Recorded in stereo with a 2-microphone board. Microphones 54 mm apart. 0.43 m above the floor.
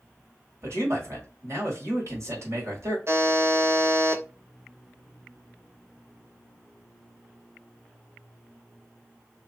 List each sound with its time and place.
0.6 s a man speaking: 60° right (ahead or behind), 1.6 m
3.1 s a buzzer: 55° right (ahead or behind), 0.8 m